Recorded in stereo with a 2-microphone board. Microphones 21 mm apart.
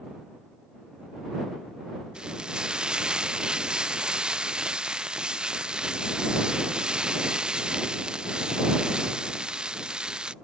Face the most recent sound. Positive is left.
turn(degrees=-50)  # may be behind; listen again after turning